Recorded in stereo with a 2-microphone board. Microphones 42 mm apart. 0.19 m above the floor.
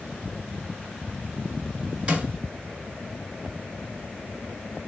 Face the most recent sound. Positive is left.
turn(degrees=-30)  # may be behind; listen again after turning